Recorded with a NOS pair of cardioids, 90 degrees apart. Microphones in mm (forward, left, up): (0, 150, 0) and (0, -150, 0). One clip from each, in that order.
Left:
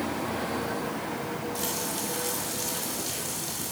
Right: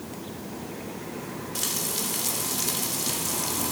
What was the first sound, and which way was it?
Frying, 45° right.